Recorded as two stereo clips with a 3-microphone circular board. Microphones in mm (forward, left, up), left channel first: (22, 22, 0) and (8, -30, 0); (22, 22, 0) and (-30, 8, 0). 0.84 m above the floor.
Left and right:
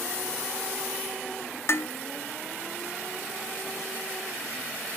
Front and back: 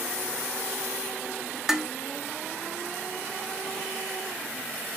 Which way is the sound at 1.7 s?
115° left.